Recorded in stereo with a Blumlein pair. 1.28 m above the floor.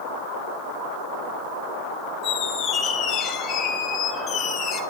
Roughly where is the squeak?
Ahead left.